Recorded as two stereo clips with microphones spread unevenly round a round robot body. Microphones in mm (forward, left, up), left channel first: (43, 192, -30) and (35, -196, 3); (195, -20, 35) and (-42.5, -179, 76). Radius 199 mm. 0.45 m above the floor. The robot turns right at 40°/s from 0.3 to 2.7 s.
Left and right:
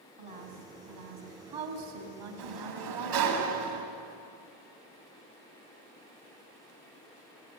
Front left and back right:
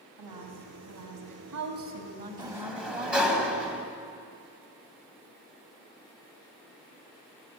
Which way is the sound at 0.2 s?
165° right.